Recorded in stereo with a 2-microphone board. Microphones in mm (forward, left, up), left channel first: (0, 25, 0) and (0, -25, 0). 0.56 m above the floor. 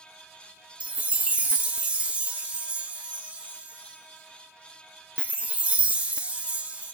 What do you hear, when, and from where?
0.8 s a chime: 25° right (ahead or behind), 0.9 m